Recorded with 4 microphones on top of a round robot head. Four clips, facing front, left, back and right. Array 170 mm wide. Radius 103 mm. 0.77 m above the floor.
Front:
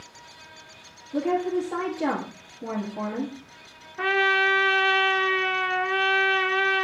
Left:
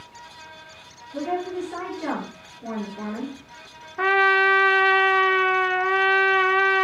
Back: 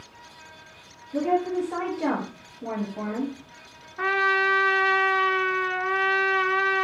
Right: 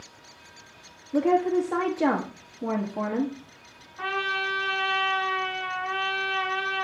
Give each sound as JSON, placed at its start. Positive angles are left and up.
{"t": 1.1, "sound": "a woman speaking", "azimuth_deg": -85, "distance_m": 1.6}
{"t": 4.0, "sound": "a trumpet", "azimuth_deg": 75, "distance_m": 0.6}